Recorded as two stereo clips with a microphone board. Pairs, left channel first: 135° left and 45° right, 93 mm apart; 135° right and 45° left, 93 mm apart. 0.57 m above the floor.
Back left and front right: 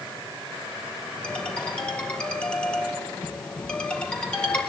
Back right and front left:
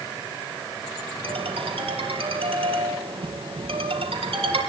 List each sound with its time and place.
1.2 s a ringtone: 55° left, 5 m